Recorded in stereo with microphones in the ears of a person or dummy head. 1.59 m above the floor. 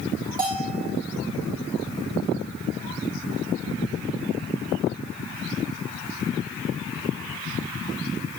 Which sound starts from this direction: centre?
A bell, at 0.4 s.